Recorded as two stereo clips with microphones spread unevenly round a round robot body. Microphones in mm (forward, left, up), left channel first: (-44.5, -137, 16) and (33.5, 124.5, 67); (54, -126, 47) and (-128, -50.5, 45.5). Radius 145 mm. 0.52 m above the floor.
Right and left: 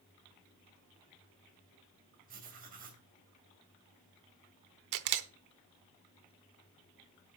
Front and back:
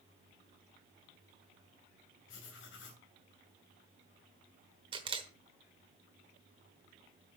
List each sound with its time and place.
2.3 s writing: 10° left, 3 m
4.9 s a camera shutter: 90° left, 1.1 m